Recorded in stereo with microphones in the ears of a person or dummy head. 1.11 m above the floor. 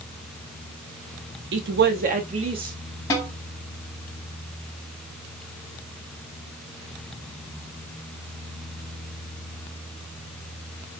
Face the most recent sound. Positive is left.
turn(degrees=25)  # may be behind; listen again after turning